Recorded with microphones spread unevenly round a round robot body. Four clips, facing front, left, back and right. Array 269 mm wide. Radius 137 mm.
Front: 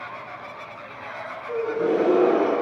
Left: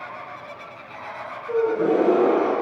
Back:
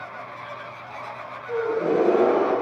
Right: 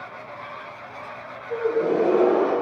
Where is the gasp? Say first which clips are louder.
Left 2 dB, even; 90° left, 8.5 m.